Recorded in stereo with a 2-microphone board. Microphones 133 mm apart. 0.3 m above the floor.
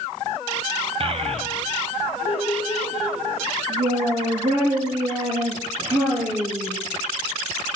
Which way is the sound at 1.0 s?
45° right (ahead or behind).